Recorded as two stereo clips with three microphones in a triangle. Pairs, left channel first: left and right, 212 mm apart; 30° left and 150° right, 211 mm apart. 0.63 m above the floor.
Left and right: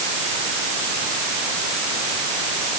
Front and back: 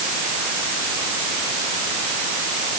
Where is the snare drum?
No snare drum in this recording.